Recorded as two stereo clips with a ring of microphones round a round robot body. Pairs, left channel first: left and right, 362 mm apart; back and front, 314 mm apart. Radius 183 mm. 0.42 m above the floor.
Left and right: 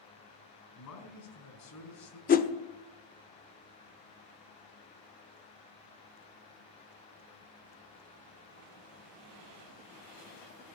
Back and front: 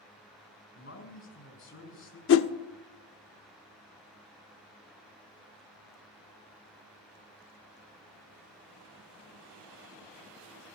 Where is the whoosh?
150° left, 0.6 m.